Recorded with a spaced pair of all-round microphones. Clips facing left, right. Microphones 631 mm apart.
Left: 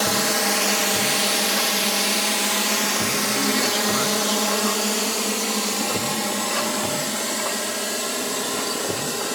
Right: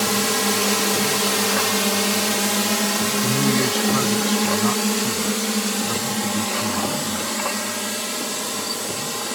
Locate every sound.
0.0 s a drone: 50° right (ahead or behind); by 9.4 s 30° right (ahead or behind)
3.2 s a man speaking: 70° right (ahead or behind)